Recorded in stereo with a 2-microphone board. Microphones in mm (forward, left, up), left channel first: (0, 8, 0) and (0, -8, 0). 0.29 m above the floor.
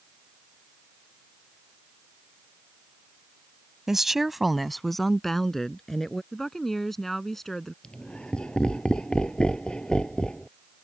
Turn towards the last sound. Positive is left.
turn(degrees=70)  # may be behind; listen again after turning